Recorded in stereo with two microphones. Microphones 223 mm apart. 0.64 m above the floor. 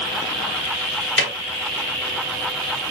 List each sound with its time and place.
1.2 s a snare drum: 60° left (ahead or behind), 1.6 m